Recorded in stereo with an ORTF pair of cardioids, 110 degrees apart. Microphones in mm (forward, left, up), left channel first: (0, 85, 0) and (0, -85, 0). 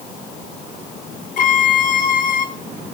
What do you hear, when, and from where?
1.4 s a violin: 50° left, 1.3 m